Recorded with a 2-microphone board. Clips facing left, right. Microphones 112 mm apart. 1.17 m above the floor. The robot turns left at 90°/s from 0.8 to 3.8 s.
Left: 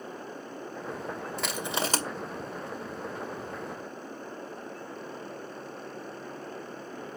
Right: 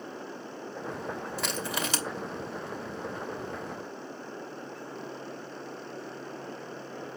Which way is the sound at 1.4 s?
5° right (ahead or behind).